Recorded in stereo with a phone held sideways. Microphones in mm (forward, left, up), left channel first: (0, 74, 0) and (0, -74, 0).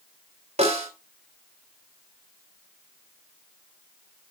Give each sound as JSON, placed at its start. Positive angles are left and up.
{"t": 0.6, "sound": "a snare drum", "side_deg": -45, "distance_m": 4.0}